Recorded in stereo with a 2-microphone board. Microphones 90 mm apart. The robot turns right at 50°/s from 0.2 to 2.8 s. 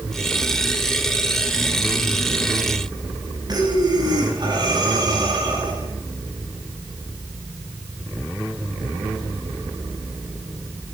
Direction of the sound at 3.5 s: 50° right (ahead or behind).